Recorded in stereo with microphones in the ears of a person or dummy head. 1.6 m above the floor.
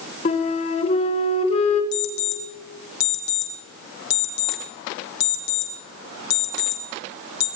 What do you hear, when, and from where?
0.2 s a flute: 35° left (ahead or behind), 1.5 m
1.9 s an alarm clock: 65° left (ahead or behind), 2.5 m